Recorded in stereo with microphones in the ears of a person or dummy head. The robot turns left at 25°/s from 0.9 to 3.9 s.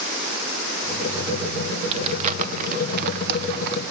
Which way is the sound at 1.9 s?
35° right (ahead or behind).